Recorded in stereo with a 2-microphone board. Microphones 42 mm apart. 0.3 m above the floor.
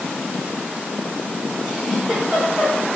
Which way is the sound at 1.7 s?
15° right (ahead or behind).